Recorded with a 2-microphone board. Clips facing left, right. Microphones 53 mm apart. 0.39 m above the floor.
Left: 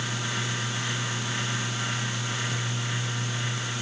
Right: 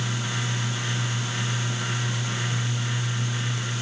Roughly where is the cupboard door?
I don't hear a cupboard door.